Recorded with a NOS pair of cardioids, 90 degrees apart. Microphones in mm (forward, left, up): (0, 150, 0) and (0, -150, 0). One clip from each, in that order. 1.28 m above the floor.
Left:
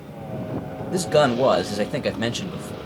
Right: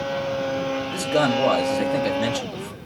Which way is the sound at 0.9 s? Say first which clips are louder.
Left 4 dB; 20° left.